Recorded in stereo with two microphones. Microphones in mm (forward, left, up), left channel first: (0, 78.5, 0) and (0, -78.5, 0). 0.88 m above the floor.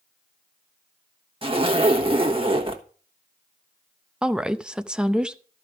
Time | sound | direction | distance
1.4 | a zipper | 35° right (ahead or behind) | 1.2 m
4.2 | a woman speaking | 5° right (ahead or behind) | 0.6 m